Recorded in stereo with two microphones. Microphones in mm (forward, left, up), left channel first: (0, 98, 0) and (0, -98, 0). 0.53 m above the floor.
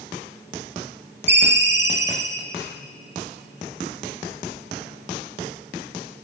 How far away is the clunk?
No clunk in this recording.